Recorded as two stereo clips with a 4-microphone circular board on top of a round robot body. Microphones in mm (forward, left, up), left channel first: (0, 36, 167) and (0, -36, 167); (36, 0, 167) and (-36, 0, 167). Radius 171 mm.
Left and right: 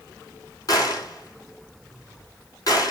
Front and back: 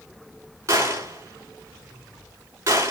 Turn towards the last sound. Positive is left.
turn(degrees=130)